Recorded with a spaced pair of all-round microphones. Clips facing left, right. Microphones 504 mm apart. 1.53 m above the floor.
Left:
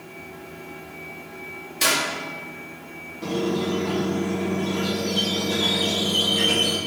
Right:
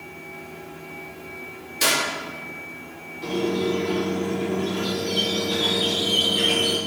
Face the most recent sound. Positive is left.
turn(degrees=65)  # may be behind; listen again after turning